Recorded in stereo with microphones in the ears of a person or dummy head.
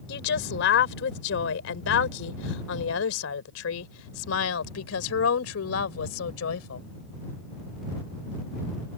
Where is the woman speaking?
70° left (ahead or behind).